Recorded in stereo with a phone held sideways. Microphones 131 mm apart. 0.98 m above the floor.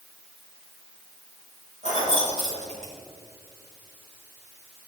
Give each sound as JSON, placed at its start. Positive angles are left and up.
{"t": 1.8, "sound": "keys jangling", "side_deg": -60, "distance_m": 5.0}